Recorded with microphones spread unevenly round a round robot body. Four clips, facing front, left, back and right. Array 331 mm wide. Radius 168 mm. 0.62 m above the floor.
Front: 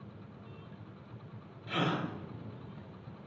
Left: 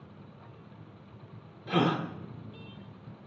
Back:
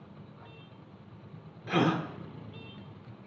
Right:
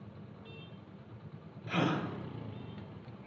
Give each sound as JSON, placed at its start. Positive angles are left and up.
{"t": 1.7, "sound": "a gasp", "azimuth_deg": 130, "distance_m": 1.3}